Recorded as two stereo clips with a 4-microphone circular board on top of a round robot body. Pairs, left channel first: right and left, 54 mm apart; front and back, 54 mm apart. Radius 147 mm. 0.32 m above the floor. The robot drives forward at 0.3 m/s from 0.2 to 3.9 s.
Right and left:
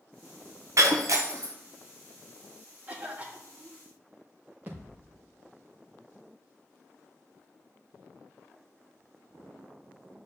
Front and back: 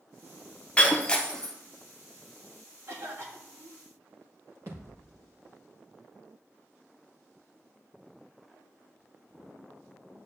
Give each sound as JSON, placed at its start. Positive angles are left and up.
{"t": 0.8, "sound": "breaking glass", "azimuth_deg": 70, "distance_m": 1.3}
{"t": 2.9, "sound": "a cough", "azimuth_deg": 150, "distance_m": 2.5}
{"t": 4.7, "sound": "a thud", "azimuth_deg": 145, "distance_m": 4.0}